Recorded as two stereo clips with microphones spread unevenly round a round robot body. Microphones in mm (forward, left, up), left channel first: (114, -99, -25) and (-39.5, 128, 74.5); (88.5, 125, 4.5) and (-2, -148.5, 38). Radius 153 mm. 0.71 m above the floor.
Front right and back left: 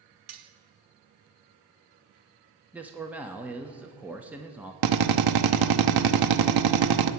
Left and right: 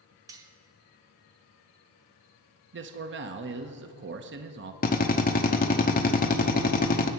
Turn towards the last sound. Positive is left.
turn(degrees=125)